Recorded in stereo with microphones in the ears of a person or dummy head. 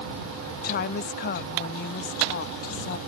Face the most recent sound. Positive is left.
turn(degrees=50)  # may be behind; listen again after turning